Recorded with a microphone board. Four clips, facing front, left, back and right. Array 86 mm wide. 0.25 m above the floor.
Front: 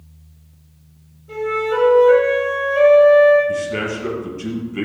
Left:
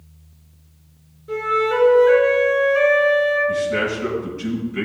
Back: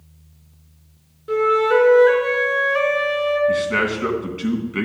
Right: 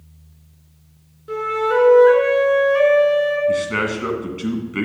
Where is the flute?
155° right, 3.5 m.